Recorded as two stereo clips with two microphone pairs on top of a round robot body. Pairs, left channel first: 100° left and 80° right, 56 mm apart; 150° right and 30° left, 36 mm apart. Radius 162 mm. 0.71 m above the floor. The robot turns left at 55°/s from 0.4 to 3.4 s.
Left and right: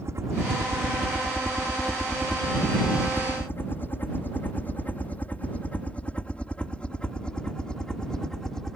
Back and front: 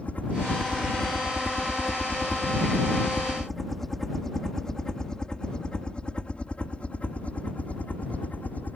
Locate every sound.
0.0 s a helicopter: 105° right; by 8.8 s 175° left